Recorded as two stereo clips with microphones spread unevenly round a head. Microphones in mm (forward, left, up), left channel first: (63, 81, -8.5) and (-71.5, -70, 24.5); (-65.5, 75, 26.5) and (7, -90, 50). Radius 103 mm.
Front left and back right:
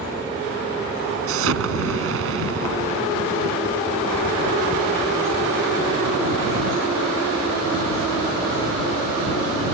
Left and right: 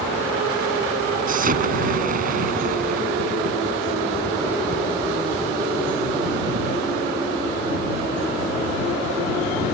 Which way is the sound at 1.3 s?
105° right.